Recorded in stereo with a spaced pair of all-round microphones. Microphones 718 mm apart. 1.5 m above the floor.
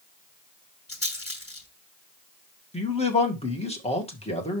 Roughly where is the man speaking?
Centre.